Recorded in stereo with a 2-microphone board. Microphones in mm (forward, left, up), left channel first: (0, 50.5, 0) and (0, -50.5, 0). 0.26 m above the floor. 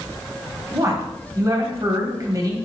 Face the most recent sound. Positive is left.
turn(degrees=-35)  # may be behind; listen again after turning